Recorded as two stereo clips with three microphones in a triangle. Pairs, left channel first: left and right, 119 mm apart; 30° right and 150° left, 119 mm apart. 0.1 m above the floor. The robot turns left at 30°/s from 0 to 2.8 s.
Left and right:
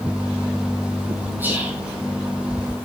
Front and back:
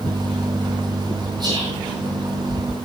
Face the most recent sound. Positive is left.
turn(degrees=155)